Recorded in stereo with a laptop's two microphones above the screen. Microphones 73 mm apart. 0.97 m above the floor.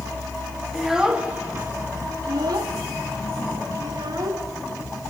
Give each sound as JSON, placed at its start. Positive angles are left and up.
{"t": 0.7, "sound": "a child speaking", "side_deg": 0, "distance_m": 1.4}